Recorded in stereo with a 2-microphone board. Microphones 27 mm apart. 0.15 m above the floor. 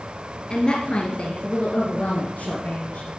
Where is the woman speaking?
30° left (ahead or behind), 2.5 m; by 3.1 s 65° left (ahead or behind), 3.5 m.